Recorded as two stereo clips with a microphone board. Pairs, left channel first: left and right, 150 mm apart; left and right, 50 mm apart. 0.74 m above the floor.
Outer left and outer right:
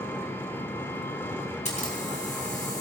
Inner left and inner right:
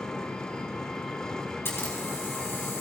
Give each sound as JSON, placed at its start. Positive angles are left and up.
{"t": 0.0, "sound": "an engine running", "side_deg": 15, "distance_m": 1.4}
{"t": 1.6, "sound": "a camera shutter", "side_deg": 50, "distance_m": 4.5}